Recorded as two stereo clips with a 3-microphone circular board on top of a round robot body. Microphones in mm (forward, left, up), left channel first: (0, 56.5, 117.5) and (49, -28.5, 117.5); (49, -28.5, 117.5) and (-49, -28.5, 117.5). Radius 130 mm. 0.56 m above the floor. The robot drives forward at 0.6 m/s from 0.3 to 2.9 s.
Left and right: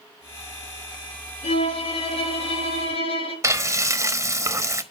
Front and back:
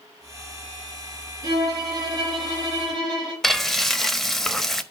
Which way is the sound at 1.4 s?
125° left.